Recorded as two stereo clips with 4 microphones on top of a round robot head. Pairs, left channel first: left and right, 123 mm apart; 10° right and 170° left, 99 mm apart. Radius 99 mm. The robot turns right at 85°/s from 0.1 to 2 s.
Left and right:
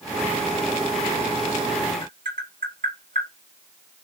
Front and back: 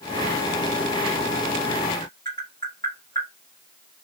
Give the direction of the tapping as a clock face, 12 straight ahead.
3 o'clock.